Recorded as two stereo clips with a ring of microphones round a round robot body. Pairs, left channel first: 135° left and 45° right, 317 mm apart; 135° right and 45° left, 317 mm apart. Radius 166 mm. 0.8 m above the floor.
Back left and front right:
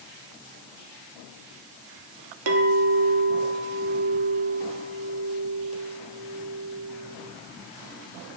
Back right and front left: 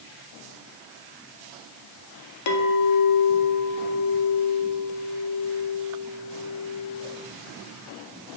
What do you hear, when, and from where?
2.5 s a clink: 95° right, 0.7 m